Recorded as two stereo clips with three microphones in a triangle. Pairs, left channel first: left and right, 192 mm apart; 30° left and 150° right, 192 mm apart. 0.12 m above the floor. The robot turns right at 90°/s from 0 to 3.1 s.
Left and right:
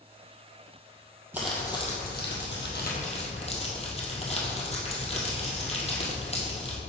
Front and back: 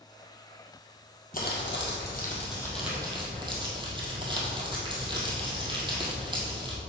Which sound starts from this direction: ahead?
Crumpling, at 1.3 s.